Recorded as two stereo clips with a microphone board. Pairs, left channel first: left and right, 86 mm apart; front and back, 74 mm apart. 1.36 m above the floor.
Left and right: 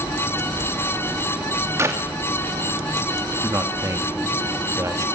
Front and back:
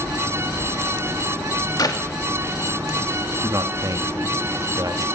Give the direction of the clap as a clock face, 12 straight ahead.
1 o'clock.